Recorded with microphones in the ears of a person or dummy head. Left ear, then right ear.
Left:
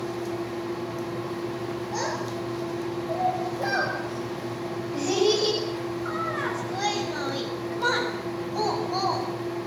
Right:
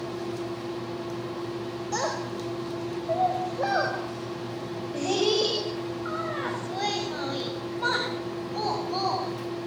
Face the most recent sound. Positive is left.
turn(degrees=5)  # may be behind; listen again after turning